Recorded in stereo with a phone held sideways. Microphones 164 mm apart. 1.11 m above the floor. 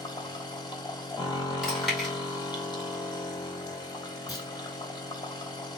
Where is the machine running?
25° left (ahead or behind), 0.9 m.